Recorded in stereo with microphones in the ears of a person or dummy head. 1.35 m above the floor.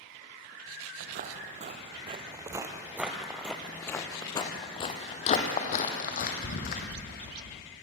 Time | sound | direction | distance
1.0 | footsteps | 50° right (ahead or behind) | 2 m